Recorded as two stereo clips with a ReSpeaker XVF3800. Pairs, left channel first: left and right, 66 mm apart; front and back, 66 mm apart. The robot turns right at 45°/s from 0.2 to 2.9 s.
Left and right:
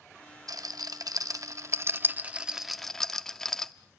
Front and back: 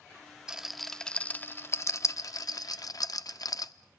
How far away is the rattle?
About 0.6 m.